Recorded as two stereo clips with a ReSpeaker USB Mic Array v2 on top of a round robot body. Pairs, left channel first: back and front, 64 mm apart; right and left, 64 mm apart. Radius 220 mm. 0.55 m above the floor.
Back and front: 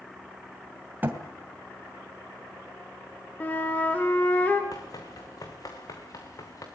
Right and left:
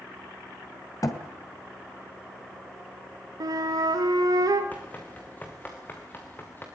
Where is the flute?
115° left, 1.7 m.